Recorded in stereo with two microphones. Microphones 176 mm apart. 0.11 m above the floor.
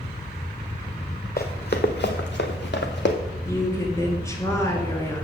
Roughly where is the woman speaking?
Centre.